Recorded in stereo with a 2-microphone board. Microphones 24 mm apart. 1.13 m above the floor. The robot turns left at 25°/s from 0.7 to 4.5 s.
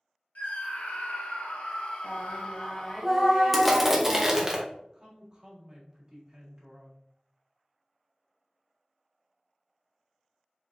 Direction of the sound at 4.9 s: 30° right (ahead or behind).